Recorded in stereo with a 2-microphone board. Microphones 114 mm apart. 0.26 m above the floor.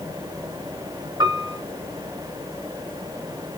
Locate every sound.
1.2 s a piano: 35° right (ahead or behind), 2.5 m